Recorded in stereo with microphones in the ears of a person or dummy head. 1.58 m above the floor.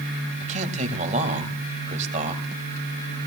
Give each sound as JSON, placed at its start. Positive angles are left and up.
{"t": 0.4, "sound": "a man speaking", "side_deg": -45, "distance_m": 1.7}